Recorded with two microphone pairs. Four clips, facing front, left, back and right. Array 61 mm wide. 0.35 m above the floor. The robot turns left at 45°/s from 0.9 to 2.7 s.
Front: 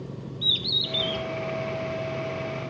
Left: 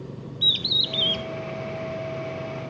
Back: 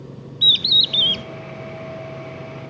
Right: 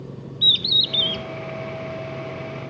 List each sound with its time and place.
0.4 s a bird: 175° left, 0.5 m; by 1.2 s 160° left, 0.5 m